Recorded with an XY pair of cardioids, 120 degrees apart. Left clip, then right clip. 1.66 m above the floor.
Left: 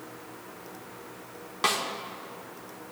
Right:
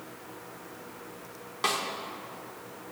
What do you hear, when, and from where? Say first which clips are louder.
1.6 s a snare drum: left 2 dB; 15° left, 1.8 m